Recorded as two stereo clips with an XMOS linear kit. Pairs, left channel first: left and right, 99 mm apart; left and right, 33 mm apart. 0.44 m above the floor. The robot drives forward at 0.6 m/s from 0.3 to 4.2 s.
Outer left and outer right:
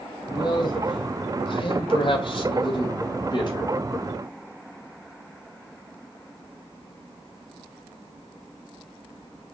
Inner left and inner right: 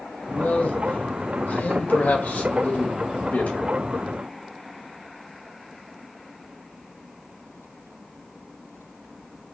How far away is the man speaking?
About 2 m.